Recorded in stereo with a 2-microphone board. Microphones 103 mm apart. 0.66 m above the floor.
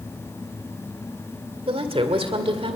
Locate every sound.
1.7 s a woman speaking: 65° right (ahead or behind), 2 m